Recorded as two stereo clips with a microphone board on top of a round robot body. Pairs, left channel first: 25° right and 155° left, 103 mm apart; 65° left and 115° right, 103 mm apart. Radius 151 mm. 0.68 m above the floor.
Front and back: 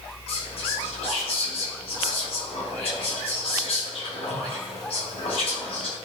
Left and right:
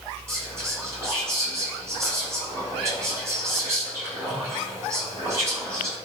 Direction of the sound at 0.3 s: 50° right.